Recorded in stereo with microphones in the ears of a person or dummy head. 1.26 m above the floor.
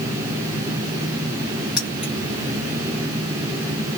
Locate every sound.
1.8 s keys jangling: centre (ahead or behind), 1.6 m